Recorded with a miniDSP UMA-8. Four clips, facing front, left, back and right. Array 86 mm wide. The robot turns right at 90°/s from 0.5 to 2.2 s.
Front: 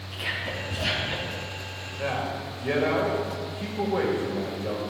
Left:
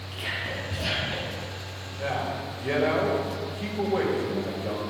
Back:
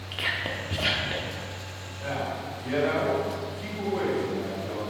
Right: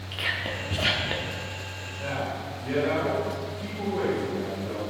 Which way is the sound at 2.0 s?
15° left.